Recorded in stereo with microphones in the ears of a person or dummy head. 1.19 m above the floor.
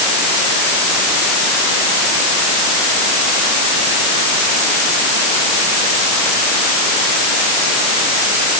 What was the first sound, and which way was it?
Only background noise.